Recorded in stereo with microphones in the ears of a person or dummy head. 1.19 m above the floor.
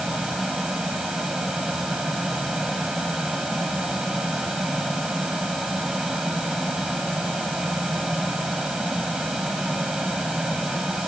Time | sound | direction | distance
0.0 | a fan | centre (ahead or behind) | ?